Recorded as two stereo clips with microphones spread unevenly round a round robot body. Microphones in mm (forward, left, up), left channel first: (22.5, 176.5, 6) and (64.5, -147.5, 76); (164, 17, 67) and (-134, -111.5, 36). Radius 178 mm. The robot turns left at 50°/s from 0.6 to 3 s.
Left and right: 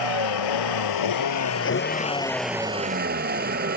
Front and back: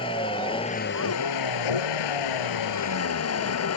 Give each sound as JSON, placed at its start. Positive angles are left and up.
{"t": 0.0, "sound": "a vehicle", "azimuth_deg": 100}